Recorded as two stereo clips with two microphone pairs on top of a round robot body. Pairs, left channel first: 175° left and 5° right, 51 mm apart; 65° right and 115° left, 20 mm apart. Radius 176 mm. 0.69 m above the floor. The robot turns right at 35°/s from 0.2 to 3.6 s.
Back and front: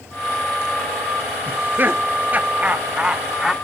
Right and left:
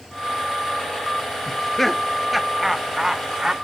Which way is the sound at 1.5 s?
5° right.